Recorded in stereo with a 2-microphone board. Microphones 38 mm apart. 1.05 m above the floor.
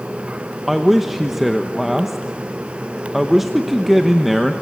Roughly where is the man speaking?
Centre.